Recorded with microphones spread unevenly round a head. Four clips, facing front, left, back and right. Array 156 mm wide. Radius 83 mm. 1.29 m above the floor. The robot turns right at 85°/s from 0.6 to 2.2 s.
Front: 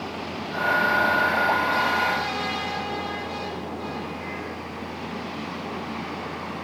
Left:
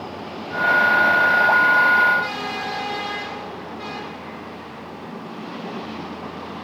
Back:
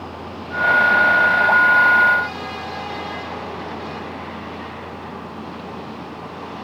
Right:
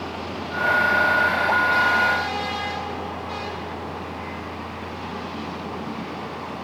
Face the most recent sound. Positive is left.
No sound to turn to.